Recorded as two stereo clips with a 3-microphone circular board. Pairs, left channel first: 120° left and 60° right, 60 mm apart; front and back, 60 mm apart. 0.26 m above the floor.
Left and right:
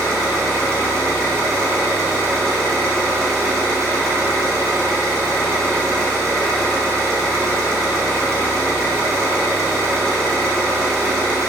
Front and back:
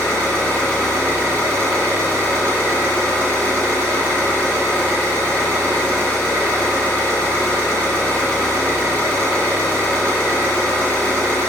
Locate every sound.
0.0 s an engine running: 70° right, 1.4 m